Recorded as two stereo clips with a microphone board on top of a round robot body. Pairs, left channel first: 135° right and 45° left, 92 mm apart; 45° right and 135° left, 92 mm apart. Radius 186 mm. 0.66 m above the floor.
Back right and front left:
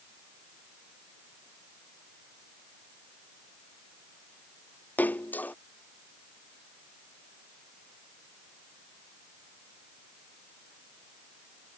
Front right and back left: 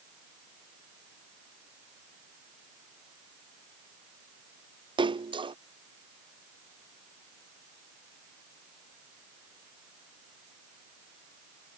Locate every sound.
5.0 s a splash: 155° left